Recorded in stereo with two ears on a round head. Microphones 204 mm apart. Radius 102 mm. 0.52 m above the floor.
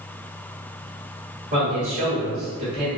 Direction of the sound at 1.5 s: 40° right (ahead or behind).